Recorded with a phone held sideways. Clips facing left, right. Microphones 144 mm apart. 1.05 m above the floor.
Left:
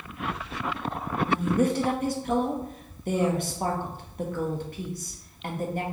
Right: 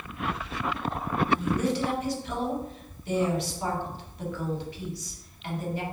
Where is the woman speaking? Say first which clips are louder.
Left 4 dB; 50° left (ahead or behind), 0.7 m.